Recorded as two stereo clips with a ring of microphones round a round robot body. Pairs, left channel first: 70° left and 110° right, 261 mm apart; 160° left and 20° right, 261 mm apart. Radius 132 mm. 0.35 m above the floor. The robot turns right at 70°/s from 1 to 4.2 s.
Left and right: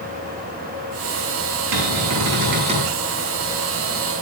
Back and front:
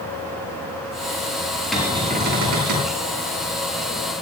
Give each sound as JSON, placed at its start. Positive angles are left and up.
{"t": 1.7, "sound": "a cupboard door", "azimuth_deg": -115, "distance_m": 9.0}